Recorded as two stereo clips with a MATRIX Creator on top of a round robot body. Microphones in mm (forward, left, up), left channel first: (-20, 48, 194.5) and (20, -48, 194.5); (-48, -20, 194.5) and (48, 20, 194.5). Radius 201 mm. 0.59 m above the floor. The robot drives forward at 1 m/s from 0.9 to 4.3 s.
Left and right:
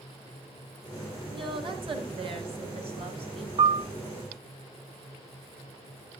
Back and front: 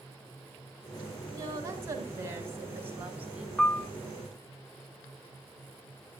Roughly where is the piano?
Right.